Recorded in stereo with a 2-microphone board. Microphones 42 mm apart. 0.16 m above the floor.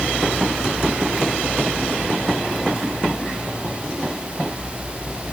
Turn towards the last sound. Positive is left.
No sound to turn to.